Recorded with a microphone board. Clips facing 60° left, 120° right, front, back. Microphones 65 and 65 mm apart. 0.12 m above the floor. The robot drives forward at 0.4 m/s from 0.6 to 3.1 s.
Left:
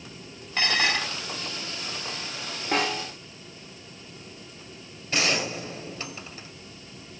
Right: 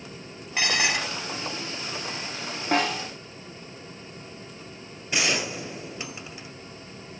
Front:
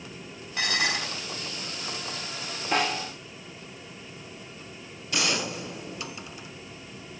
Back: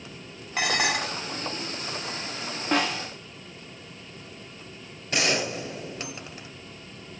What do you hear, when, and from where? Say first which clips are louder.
0.6 s dishes clattering: even, back 3 dB; 165° left, 1.7 m
2.7 s a snare drum: right 2 dB, back 1 dB; 135° right, 7.5 m
5.1 s a gunshot: even, back 3 dB; 170° left, 1.9 m